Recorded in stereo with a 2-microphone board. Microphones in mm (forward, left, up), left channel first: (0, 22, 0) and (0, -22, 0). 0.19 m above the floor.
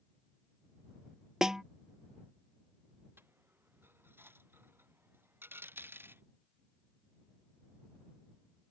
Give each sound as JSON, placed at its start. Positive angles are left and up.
{"t": 1.4, "sound": "a snare drum", "side_deg": -10}
{"t": 3.2, "sound": "a dropped coin", "side_deg": -55}